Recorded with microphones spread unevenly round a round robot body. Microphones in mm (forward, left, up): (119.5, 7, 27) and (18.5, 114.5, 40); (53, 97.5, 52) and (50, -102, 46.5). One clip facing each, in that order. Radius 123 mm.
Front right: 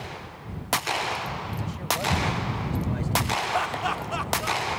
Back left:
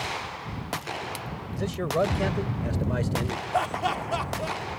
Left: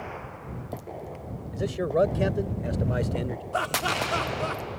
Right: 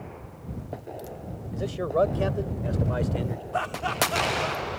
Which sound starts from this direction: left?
Laughter, at 3.5 s.